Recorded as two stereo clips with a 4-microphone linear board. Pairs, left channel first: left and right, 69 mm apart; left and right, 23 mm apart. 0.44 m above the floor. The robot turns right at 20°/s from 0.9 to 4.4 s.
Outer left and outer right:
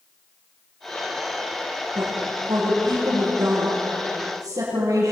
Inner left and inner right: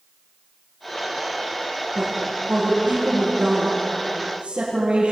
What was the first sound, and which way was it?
A woman speaking, 115° right.